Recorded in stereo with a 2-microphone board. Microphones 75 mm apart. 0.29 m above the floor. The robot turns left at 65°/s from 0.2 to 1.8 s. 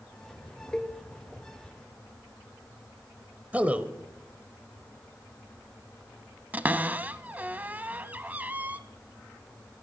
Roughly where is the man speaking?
Right.